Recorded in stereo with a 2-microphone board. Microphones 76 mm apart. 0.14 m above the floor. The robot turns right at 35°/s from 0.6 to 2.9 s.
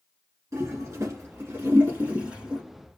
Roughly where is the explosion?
I don't hear an explosion.